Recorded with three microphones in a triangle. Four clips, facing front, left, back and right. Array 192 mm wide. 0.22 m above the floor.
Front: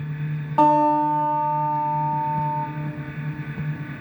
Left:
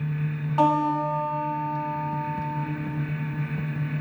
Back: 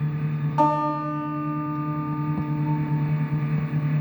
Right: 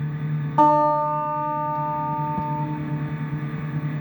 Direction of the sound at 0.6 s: 35° right.